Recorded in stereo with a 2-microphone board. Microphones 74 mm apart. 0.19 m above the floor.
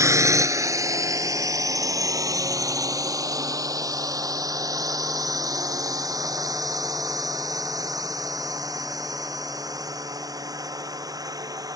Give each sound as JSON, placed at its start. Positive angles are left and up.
{"t": 0.0, "sound": "a drone", "side_deg": -45}